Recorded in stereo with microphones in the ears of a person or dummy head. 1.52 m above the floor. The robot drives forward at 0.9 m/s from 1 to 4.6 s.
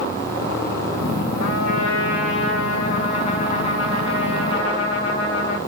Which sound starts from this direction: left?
A trumpet, at 1.4 s.